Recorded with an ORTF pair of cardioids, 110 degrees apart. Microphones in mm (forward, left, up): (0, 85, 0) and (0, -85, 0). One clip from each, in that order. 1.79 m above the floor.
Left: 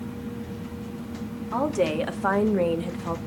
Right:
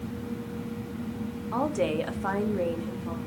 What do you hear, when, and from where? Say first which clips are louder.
1.5 s a woman speaking: left 3 dB; 5° left, 1.3 m; by 3.2 s 55° left, 0.9 m